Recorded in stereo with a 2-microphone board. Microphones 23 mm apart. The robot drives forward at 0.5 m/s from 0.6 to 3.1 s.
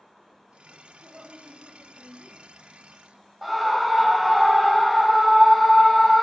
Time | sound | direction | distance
1.0 | a woman speaking | 65° right (ahead or behind) | 4.5 m
3.4 | a scream | 15° right (ahead or behind) | 1.0 m